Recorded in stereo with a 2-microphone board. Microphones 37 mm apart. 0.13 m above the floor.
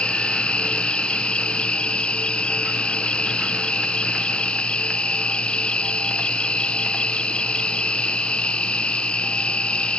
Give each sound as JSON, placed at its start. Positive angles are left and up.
{"t": 0.0, "sound": "an insect", "side_deg": 30}